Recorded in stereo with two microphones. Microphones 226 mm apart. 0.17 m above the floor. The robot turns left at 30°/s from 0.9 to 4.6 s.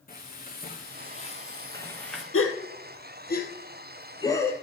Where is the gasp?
70° left (ahead or behind), 1.7 m; by 4.5 s 10° left (ahead or behind), 1.7 m.